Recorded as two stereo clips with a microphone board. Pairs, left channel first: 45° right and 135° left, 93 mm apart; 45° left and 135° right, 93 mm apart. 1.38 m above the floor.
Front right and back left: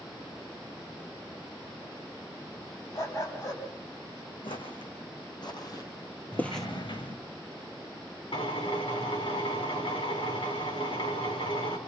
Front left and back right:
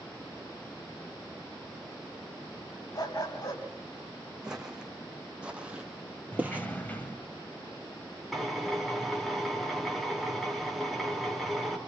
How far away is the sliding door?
About 3 m.